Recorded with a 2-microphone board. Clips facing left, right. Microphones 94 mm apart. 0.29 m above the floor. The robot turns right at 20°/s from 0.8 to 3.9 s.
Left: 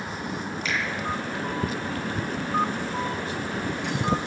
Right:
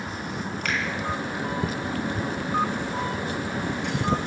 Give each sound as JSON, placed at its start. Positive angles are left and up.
{"t": 0.7, "sound": "a finger snap", "side_deg": -60, "distance_m": 3.0}